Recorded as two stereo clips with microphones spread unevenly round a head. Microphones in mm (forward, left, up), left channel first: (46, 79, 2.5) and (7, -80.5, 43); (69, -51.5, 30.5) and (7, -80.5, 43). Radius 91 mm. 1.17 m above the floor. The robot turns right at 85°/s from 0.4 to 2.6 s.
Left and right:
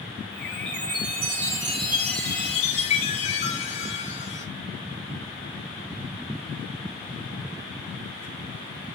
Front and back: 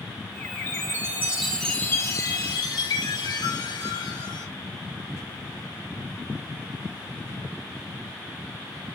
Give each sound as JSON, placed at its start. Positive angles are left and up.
{"t": 0.7, "sound": "a chime", "azimuth_deg": -140, "distance_m": 5.0}